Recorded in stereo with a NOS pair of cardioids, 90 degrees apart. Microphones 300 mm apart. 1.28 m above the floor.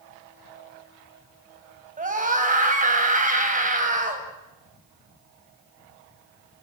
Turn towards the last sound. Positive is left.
turn(degrees=-25)